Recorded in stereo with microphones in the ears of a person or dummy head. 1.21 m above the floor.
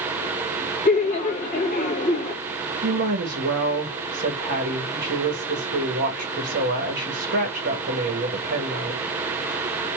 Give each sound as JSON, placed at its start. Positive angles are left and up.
{"t": 0.8, "sound": "laughter", "side_deg": 35, "distance_m": 1.5}
{"t": 2.8, "sound": "a woman speaking", "side_deg": -55, "distance_m": 1.5}